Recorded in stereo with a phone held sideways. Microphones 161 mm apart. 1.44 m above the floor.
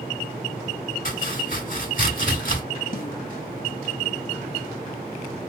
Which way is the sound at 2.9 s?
60° left (ahead or behind).